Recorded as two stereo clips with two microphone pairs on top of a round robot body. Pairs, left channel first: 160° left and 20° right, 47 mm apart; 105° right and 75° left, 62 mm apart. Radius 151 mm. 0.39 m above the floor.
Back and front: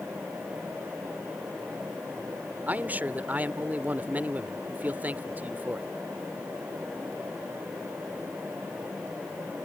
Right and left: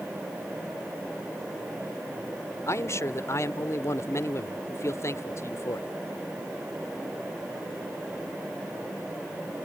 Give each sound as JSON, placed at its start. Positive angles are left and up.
{"t": 2.7, "sound": "a man speaking", "azimuth_deg": -70}